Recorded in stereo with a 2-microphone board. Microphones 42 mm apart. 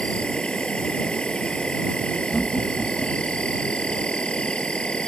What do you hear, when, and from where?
0.0 s an insect: 25° left (ahead or behind)
2.3 s laughter: 15° left (ahead or behind)